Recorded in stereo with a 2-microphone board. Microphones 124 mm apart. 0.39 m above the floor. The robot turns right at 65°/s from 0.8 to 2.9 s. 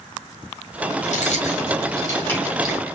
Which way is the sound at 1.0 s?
80° left.